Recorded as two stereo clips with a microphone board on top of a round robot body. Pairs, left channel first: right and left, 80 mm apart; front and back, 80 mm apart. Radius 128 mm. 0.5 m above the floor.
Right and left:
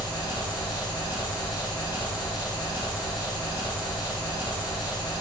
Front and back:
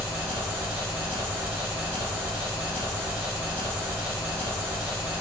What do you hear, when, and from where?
0.0 s an engine running: 115° right, 0.9 m